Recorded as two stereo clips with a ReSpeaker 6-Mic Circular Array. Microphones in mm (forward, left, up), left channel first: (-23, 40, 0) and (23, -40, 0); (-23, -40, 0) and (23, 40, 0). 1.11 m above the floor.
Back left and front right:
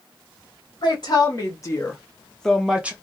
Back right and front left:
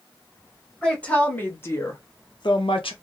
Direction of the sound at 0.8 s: 160° left.